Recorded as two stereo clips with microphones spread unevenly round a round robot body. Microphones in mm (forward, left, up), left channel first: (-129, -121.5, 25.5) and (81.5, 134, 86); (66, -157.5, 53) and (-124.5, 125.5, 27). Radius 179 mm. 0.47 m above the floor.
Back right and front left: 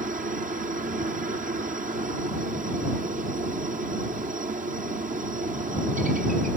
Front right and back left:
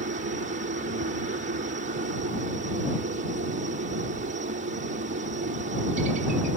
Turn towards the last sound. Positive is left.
turn(degrees=110)